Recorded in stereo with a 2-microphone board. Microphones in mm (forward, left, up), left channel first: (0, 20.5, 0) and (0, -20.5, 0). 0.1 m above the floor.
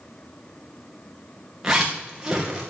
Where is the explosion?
No explosion in this recording.